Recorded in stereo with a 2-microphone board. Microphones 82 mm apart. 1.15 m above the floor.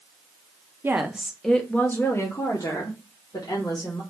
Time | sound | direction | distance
0.8 | a woman speaking | 25° right (ahead or behind) | 0.6 m